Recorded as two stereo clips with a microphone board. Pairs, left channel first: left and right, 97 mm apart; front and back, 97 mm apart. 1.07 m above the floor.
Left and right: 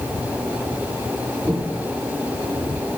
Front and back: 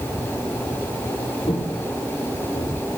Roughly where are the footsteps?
Ahead.